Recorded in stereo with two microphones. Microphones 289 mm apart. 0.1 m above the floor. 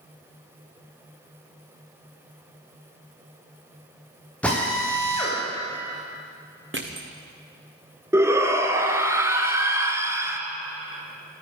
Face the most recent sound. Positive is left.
turn(degrees=-10)  # may be behind; listen again after turning